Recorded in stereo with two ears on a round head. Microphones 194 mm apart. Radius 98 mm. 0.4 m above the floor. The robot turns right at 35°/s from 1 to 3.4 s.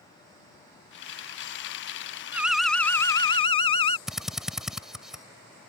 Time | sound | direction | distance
2.3 | an alarm | 10° right | ?
4.1 | a drill | centre (ahead or behind) | ?